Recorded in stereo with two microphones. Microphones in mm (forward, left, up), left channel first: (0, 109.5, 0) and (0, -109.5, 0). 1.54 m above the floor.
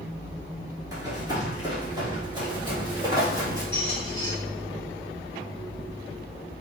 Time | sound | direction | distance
0.9 | running footsteps | 15° right (ahead or behind) | 1.6 m
3.7 | a squeak | 20° left (ahead or behind) | 2.0 m